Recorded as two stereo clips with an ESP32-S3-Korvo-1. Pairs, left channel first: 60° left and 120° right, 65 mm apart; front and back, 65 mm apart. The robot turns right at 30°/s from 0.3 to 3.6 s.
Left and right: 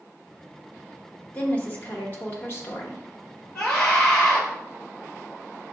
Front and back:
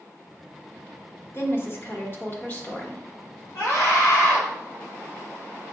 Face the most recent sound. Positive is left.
turn(degrees=10)